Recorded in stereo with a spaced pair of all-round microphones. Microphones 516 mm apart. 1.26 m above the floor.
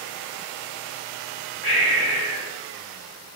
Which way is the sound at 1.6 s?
70° left (ahead or behind).